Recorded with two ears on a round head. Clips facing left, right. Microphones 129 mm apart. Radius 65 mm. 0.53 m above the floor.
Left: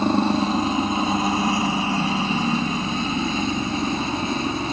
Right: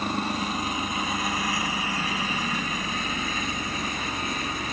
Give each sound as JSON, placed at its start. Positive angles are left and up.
{"t": 0.0, "sound": "a helicopter", "side_deg": 25}